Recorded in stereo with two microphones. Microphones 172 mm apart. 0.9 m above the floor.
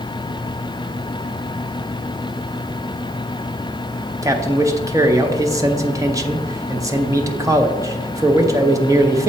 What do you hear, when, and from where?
4.2 s a man speaking: 20° right (ahead or behind), 0.6 m